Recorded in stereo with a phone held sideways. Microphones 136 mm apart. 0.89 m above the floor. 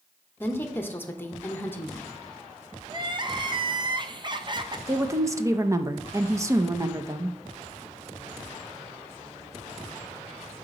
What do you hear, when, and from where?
0.4 s a woman speaking: 15° left (ahead or behind), 0.9 m
2.9 s crying: 35° right (ahead or behind), 0.6 m
4.9 s a woman speaking: 20° right (ahead or behind), 0.6 m